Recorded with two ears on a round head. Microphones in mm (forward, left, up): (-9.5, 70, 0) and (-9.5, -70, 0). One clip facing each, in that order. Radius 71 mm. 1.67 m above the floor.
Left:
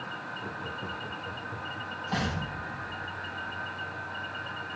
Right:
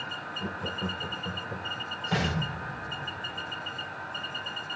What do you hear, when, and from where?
0.4 s laughter: 60° right (ahead or behind), 1.1 m
2.1 s an explosion: 75° right (ahead or behind), 6 m